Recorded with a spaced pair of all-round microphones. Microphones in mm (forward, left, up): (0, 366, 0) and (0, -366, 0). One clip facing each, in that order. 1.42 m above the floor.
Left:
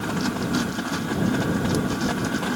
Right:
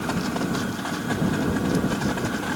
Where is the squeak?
I don't hear a squeak.